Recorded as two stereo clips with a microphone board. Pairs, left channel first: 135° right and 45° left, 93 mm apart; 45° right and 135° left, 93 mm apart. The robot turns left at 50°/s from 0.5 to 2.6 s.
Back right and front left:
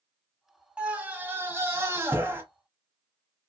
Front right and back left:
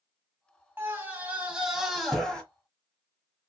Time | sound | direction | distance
0.8 | a scream | 105° left | 1.1 m